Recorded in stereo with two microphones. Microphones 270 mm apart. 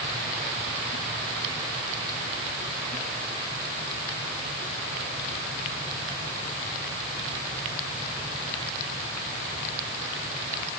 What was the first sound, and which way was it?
Only background noise.